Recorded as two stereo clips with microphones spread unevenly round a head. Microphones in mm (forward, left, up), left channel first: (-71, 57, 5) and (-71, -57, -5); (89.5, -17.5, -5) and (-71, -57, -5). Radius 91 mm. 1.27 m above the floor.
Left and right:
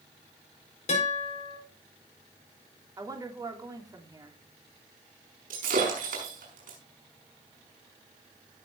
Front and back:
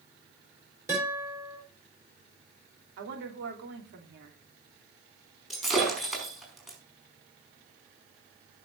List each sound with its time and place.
0.9 s a guitar: 120° left, 7.5 m
3.0 s a woman speaking: 150° right, 3 m
5.5 s breaking glass: 75° right, 5 m